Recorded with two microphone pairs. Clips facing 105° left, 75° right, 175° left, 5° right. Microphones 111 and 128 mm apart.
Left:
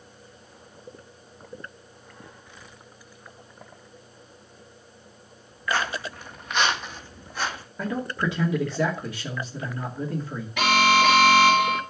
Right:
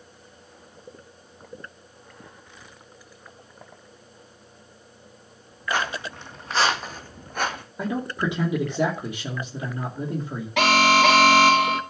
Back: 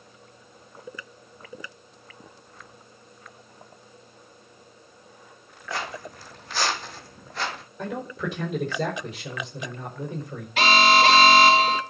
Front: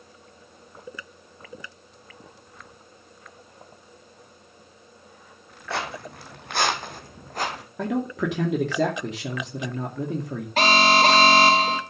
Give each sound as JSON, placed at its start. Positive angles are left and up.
{"t": 5.7, "sound": "footsteps", "azimuth_deg": 0, "distance_m": 2.5}
{"t": 7.8, "sound": "a man speaking", "azimuth_deg": -5, "distance_m": 2.5}
{"t": 10.6, "sound": "an alarm", "azimuth_deg": -60, "distance_m": 2.0}